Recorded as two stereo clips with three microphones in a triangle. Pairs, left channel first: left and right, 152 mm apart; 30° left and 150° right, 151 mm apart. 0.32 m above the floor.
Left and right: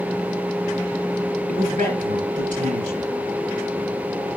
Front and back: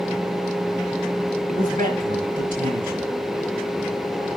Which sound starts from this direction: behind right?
A man speaking, at 1.5 s.